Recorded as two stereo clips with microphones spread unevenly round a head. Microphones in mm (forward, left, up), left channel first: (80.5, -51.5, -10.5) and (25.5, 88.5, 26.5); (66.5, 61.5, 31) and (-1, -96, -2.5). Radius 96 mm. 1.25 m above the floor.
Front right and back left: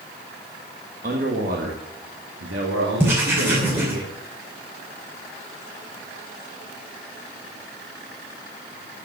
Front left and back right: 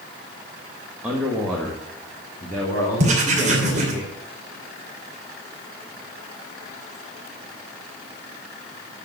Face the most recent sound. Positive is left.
turn(degrees=-170)